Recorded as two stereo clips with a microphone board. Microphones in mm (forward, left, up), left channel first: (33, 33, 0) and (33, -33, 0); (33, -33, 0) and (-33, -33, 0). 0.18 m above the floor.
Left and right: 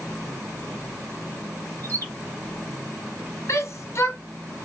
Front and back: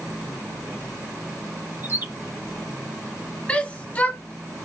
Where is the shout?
65° left, 1.6 m.